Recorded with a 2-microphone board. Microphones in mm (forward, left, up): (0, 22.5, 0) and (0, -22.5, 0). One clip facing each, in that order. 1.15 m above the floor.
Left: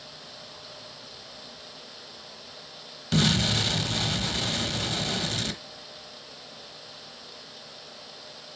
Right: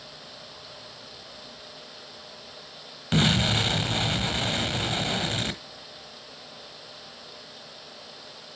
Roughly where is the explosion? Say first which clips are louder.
Right 1 dB; right.